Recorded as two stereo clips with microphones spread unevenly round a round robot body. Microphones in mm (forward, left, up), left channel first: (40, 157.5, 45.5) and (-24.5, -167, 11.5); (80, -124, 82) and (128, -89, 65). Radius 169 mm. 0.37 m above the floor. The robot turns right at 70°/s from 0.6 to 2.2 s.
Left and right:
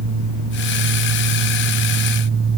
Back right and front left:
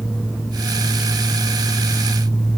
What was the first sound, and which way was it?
Only background noise.